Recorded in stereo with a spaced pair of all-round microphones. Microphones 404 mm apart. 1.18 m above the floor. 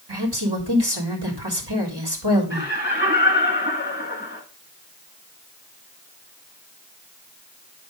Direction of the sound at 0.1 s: 75° right (ahead or behind).